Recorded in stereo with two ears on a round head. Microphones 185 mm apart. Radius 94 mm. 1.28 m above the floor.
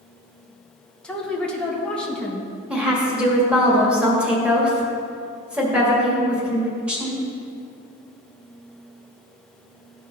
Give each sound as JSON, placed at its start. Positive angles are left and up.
{"t": 1.0, "sound": "a woman speaking", "side_deg": 5, "distance_m": 1.4}
{"t": 2.7, "sound": "a woman speaking", "side_deg": -5, "distance_m": 1.9}